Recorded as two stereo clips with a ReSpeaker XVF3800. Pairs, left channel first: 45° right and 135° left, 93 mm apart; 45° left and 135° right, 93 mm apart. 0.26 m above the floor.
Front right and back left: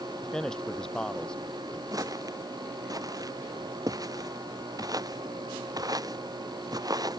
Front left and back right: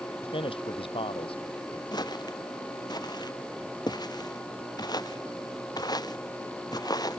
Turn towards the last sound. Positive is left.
turn(degrees=85)